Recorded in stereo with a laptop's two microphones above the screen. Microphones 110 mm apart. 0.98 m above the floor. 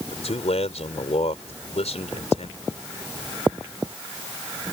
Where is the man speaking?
75° left (ahead or behind).